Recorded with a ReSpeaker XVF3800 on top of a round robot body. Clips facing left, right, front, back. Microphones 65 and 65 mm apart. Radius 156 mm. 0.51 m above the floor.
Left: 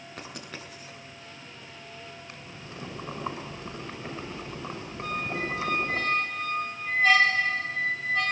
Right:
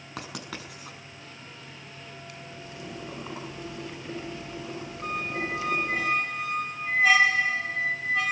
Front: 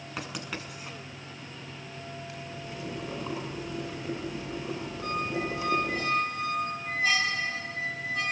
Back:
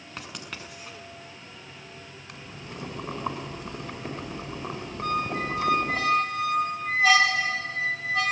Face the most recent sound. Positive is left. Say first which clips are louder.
# even, back 4 dB
turn(degrees=-170)